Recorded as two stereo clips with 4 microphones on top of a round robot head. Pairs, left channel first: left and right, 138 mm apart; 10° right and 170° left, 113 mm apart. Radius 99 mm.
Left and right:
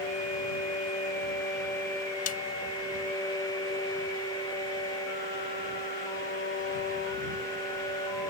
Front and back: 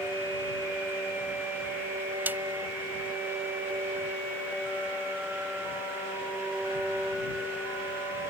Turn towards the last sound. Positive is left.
turn(degrees=100)